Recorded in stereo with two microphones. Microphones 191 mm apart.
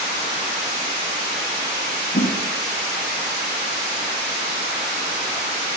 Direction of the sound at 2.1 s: 60° left (ahead or behind).